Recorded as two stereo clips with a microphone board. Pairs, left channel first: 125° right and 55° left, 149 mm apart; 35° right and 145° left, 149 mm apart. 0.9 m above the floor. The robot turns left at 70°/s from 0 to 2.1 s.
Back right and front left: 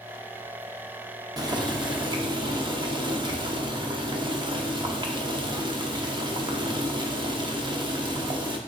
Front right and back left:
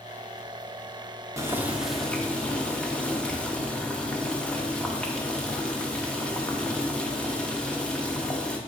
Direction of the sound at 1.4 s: 95° left.